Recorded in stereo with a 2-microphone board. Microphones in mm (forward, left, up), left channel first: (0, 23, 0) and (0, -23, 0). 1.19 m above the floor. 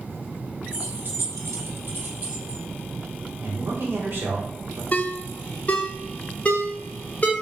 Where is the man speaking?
55° right (ahead or behind), 0.9 m.